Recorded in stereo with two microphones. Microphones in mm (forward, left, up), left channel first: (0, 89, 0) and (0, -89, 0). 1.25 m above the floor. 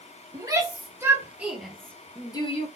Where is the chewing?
No chewing in this recording.